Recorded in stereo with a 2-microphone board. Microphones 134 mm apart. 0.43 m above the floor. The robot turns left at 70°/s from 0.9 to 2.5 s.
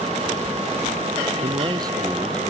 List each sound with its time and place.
1.4 s a man speaking: 120° right; by 2.5 s 165° left